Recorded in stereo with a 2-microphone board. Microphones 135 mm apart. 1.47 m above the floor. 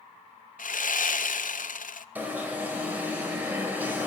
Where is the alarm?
15° right (ahead or behind), 4.5 m.